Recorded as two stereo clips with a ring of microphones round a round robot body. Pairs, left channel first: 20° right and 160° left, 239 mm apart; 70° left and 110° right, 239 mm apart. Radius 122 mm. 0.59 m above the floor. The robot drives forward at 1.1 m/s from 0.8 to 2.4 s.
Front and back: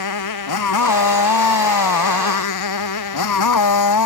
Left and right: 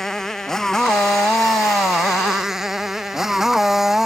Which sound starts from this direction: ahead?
A motorcycle, at 0.0 s.